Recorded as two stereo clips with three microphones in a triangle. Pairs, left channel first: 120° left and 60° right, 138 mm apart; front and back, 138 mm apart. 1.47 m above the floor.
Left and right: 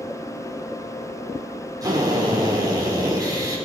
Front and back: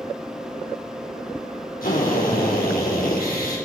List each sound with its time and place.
1.8 s a drill: 5° left, 5 m